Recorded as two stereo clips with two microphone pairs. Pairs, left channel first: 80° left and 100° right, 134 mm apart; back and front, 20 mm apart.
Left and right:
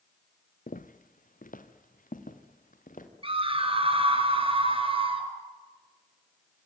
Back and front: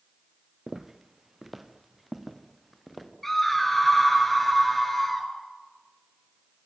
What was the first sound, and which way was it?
Footsteps, 70° left.